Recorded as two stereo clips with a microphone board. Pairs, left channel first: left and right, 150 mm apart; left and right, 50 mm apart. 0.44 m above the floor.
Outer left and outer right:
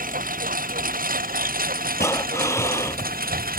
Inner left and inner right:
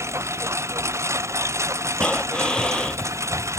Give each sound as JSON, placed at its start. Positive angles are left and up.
{"t": 0.0, "sound": "a lawn mower", "side_deg": -70}
{"t": 2.0, "sound": "breathing", "side_deg": 20}